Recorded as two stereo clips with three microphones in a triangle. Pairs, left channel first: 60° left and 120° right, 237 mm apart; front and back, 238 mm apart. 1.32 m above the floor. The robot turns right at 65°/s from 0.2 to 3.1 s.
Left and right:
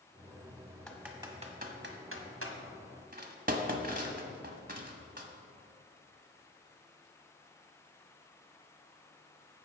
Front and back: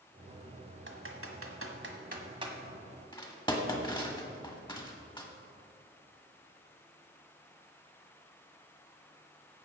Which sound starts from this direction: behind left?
Typing on a keyboard, at 0.9 s.